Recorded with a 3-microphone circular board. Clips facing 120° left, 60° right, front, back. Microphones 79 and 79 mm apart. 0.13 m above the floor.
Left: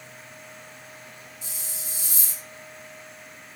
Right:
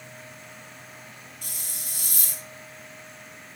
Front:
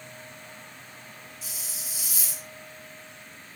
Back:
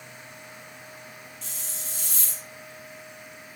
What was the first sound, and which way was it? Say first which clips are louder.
A hiss: left 1 dB, back 1 dB; 85° right.